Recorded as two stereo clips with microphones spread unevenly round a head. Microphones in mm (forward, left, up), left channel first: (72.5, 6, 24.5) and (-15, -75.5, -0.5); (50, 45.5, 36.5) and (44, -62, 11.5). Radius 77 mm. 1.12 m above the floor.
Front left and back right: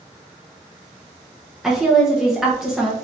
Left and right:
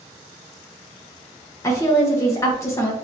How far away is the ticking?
I don't hear ticking.